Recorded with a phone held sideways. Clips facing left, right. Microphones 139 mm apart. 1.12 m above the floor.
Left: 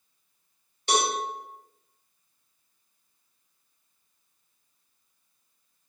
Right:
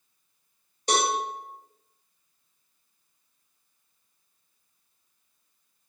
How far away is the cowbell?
About 1.2 m.